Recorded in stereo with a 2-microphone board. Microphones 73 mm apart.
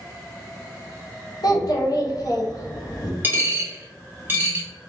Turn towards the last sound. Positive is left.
turn(degrees=-25)  # may be behind; listen again after turning